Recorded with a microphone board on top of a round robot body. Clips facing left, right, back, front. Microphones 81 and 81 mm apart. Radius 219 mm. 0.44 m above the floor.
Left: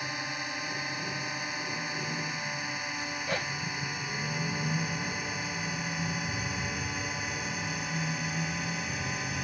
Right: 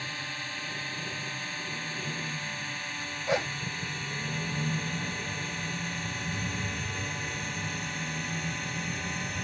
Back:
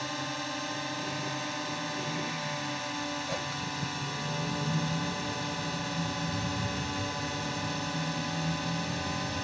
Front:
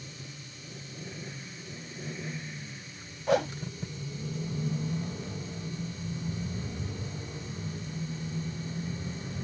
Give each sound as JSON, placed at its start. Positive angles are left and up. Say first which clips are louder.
{"t": 0.0, "sound": "a drone", "louder": "left 2 dB, back 12 dB", "azimuth_deg": 165}
{"t": 3.3, "sound": "a whoosh", "louder": "right 6 dB, front 9 dB", "azimuth_deg": -20}